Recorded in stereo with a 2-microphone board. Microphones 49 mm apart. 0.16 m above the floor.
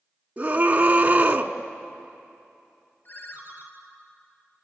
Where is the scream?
30° right (ahead or behind), 1.4 m.